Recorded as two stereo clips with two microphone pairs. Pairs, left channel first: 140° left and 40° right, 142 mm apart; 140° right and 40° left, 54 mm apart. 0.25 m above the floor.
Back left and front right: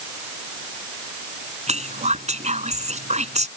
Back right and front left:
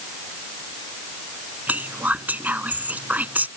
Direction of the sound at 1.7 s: 15° right.